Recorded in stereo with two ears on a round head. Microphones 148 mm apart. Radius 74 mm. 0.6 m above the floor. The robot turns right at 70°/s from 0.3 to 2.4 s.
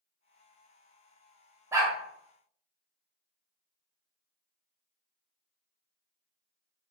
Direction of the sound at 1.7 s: 15° right (ahead or behind).